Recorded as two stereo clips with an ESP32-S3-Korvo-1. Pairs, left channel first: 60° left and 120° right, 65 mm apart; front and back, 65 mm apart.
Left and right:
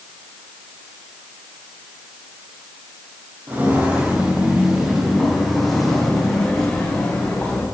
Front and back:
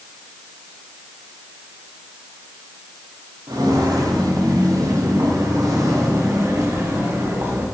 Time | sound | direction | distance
3.5 | footsteps | straight behind | 4 m